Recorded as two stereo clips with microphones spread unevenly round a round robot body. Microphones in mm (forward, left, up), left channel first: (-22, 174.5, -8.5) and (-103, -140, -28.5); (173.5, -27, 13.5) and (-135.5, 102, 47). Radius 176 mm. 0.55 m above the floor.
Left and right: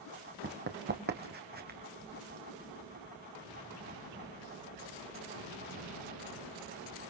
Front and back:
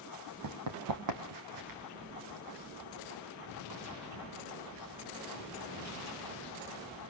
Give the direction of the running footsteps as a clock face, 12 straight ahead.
5 o'clock.